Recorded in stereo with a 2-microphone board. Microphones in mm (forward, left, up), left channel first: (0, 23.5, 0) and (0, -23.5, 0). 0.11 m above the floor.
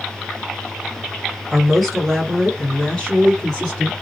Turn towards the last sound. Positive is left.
turn(degrees=15)  # may be behind; listen again after turning